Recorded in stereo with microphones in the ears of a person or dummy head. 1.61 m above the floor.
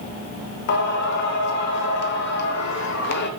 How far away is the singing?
About 0.7 m.